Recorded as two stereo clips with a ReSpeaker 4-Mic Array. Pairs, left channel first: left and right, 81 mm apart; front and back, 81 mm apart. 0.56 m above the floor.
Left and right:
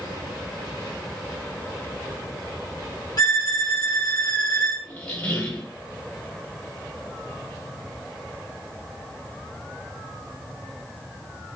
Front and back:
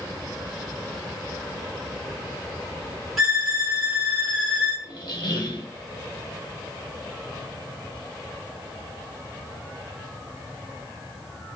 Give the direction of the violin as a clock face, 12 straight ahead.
9 o'clock.